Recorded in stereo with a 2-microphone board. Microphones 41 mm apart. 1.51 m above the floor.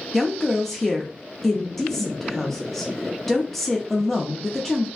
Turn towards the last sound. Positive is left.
turn(degrees=5)  # may be behind; listen again after turning